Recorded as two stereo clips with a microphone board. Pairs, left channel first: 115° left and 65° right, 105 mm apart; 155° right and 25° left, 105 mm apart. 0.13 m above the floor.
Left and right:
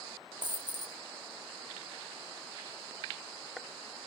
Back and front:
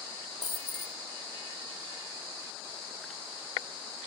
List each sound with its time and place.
0.4 s a dropped coin: 110° right, 1.4 m